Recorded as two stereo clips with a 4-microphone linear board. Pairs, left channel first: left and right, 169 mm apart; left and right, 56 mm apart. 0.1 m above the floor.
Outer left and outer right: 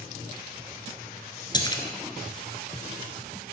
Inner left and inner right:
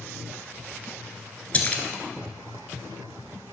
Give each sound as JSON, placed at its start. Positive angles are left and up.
{"t": 1.5, "sound": "a splash", "side_deg": 25, "distance_m": 1.0}